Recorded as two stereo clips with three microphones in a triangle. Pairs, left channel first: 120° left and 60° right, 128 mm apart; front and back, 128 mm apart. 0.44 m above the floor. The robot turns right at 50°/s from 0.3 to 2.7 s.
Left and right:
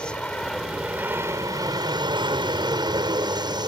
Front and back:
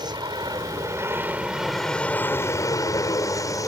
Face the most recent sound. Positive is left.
turn(degrees=-40)